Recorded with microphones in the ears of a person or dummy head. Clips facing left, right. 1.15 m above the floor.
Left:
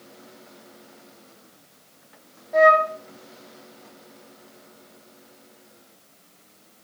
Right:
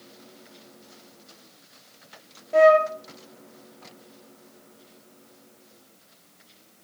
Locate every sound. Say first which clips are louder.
2.5 s a flute: right 2 dB; 50° right (ahead or behind), 1.8 m